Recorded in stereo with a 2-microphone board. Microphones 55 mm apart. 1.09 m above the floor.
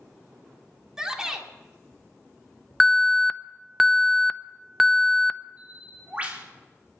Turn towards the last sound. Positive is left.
turn(degrees=-25)  # may be behind; listen again after turning